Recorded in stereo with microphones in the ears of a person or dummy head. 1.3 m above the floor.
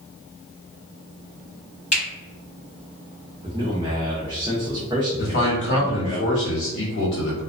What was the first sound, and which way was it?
A finger snap, 35° left (ahead or behind).